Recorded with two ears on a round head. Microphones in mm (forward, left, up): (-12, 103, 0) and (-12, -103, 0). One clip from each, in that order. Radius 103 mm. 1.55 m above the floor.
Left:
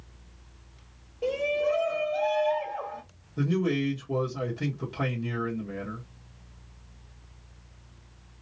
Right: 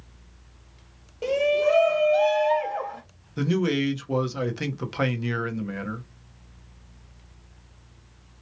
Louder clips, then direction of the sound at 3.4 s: Right 3 dB; 65° right (ahead or behind).